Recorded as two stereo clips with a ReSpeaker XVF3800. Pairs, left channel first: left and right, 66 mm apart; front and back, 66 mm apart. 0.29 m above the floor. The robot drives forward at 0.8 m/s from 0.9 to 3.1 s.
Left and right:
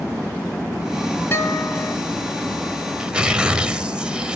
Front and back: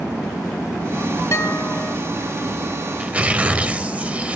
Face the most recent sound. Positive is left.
turn(degrees=-145)